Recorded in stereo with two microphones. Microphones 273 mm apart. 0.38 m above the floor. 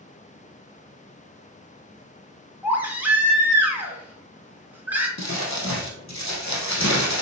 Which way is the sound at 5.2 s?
85° left.